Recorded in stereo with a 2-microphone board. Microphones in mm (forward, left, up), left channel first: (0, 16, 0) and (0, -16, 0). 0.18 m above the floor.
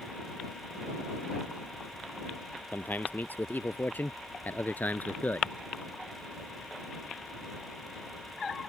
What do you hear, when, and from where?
2.7 s a man speaking: 70° left (ahead or behind); by 5.6 s 55° left (ahead or behind)